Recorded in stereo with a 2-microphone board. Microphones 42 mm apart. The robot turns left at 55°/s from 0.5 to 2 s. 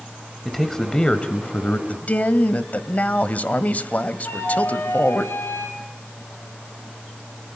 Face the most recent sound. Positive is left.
turn(degrees=85)